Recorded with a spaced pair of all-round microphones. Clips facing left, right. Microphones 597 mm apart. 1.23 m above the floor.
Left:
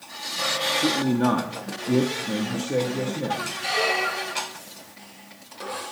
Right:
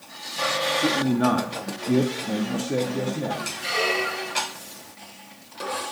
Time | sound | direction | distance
0.8 | a man speaking | centre (ahead or behind) | 0.6 m
3.6 | a squeak | 20° left (ahead or behind) | 0.6 m